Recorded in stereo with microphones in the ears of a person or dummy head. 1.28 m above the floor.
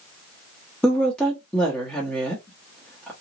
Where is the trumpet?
I don't hear a trumpet.